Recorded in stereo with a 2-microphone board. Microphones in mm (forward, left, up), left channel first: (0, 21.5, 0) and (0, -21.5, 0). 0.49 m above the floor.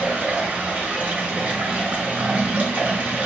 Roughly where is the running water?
Right.